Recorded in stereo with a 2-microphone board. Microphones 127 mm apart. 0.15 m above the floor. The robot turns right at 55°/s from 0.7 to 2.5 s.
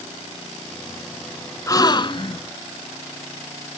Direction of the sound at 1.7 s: 35° left.